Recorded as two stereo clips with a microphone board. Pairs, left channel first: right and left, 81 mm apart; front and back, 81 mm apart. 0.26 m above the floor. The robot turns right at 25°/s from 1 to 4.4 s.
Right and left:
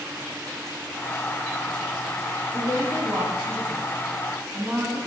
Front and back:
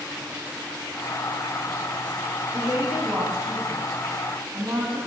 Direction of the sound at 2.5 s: 130° left.